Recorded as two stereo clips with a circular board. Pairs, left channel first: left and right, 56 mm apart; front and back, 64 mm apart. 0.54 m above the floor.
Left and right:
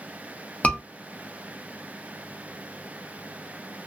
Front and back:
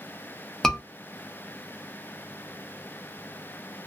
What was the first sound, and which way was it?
A scream, 80° left.